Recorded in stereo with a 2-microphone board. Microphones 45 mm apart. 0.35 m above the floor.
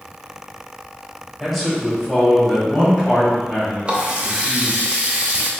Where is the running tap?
25° right (ahead or behind), 0.7 m.